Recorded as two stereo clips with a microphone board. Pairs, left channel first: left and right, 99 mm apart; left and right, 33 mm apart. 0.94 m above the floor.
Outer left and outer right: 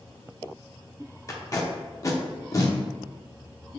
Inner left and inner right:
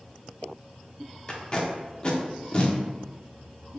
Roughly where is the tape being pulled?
Left.